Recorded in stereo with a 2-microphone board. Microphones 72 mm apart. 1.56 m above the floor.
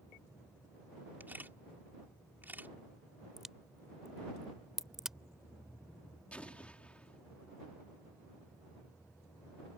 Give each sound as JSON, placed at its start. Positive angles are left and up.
{"t": 1.2, "sound": "a camera shutter", "side_deg": -30}
{"t": 3.4, "sound": "a crack", "side_deg": -5}
{"t": 6.3, "sound": "an explosion", "side_deg": 15}